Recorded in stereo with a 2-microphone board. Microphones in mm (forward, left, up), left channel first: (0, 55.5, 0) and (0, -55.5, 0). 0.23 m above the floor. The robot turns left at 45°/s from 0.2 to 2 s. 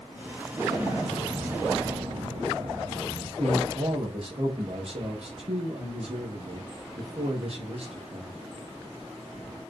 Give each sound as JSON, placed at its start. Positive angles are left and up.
{"t": 0.5, "sound": "an explosion", "azimuth_deg": -10, "distance_m": 3.5}
{"t": 3.4, "sound": "a man speaking", "side_deg": -60, "distance_m": 5.0}